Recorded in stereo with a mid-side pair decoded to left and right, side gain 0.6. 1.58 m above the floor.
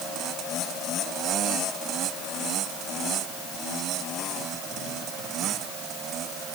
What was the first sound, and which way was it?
Only background noise.